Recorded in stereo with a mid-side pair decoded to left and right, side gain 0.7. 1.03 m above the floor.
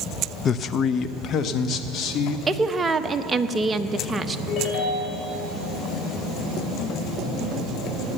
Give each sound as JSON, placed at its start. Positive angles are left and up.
{"t": 0.5, "sound": "a man speaking", "azimuth_deg": 35, "distance_m": 0.5}
{"t": 2.5, "sound": "a woman speaking", "azimuth_deg": -20, "distance_m": 0.8}
{"t": 4.5, "sound": "a ringtone", "azimuth_deg": 50, "distance_m": 3.5}